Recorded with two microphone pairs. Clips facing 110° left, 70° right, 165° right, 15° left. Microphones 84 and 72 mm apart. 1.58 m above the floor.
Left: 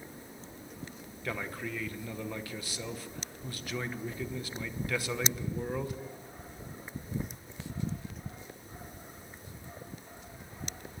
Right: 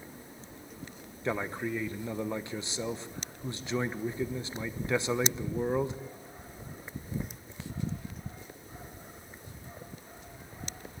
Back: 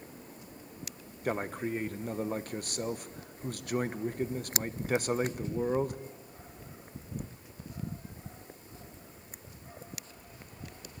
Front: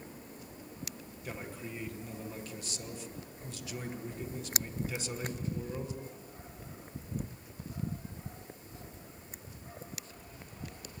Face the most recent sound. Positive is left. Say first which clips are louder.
# right 5 dB, back 10 dB
turn(degrees=-130)